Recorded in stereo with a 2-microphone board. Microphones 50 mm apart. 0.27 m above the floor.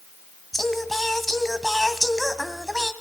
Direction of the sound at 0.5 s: 5° left (ahead or behind).